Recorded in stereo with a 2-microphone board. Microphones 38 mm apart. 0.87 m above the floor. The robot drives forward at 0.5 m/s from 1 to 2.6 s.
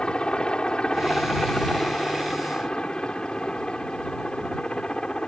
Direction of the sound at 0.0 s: 25° left (ahead or behind).